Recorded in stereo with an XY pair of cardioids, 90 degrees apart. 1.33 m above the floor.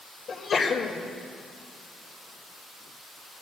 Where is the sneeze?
55° left, 2 m.